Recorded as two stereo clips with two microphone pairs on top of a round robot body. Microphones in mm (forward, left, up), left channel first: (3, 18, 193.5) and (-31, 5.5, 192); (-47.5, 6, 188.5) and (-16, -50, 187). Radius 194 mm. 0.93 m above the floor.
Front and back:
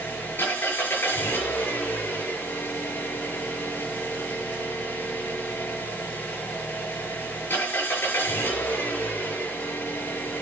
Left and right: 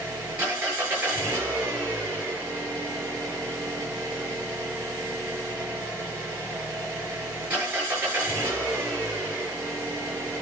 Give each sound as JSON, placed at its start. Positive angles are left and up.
{"t": 0.0, "sound": "an engine running", "azimuth_deg": 10, "distance_m": 7.5}